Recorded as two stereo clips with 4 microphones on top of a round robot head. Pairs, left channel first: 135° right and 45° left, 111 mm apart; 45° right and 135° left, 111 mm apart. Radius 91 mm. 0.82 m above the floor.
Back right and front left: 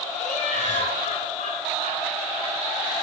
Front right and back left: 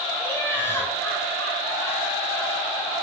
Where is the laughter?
115° right, 10 m.